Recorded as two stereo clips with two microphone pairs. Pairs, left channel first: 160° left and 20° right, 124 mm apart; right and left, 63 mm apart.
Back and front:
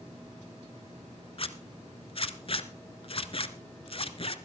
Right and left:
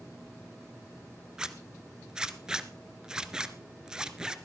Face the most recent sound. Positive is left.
turn(degrees=165)